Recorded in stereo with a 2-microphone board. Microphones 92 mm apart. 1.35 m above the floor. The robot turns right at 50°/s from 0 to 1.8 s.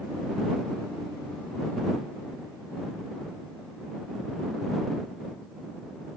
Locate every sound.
Only background noise.